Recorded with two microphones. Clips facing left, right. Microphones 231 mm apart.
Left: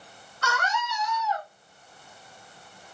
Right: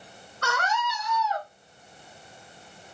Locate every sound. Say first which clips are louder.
0.4 s a scream: right 1 dB; 55° right (ahead or behind), 1.5 m; by 1.5 s 75° right (ahead or behind), 2.0 m